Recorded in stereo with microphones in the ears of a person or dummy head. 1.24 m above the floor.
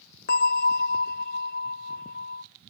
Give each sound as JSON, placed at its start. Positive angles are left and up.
{"t": 0.3, "sound": "a bell", "side_deg": 45, "distance_m": 0.6}